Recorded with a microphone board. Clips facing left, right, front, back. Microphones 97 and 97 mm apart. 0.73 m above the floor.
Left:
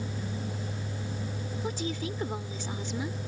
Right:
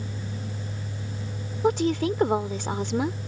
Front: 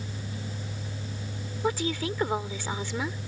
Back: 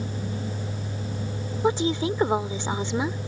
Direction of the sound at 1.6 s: 110° right.